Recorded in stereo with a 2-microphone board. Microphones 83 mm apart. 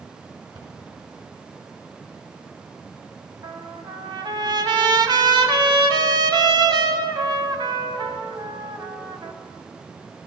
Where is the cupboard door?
60° right (ahead or behind), 3 m.